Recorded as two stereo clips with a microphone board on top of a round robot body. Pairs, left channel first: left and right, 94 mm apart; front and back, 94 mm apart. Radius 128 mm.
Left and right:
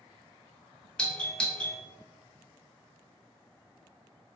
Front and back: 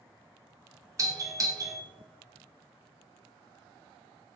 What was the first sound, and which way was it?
A doorbell, 165° left.